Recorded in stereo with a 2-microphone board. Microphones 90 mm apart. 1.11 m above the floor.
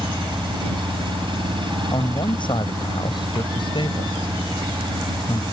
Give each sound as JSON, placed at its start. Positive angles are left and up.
{"t": 0.0, "sound": "an engine running", "side_deg": -60}
{"t": 1.9, "sound": "a man speaking", "side_deg": 60}